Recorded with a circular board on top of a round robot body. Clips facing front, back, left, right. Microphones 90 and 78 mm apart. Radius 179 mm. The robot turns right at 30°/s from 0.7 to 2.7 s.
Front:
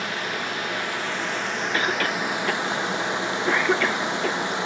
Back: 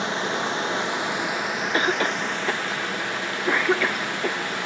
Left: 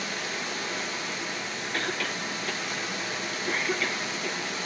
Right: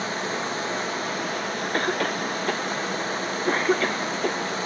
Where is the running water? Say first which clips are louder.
Back 3 dB, right 6 dB; 120° right, 1.0 m; by 4.7 s 60° right, 1.0 m.